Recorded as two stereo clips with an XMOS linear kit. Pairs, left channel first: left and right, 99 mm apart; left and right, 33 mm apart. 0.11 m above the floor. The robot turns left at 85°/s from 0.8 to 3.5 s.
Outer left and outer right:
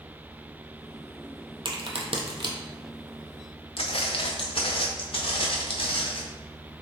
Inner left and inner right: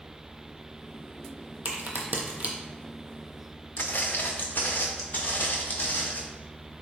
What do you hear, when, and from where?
1.6 s a crack: 55° right (ahead or behind), 0.8 m; by 2.5 s 45° right (ahead or behind), 0.8 m
3.8 s footsteps: 70° left (ahead or behind), 0.5 m; by 6.2 s 65° left (ahead or behind), 1.8 m